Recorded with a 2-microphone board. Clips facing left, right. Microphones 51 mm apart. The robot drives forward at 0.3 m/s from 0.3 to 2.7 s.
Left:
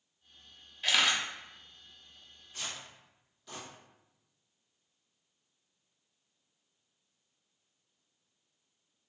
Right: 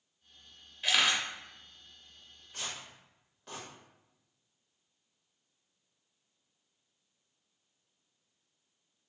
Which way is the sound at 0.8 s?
Centre (ahead or behind).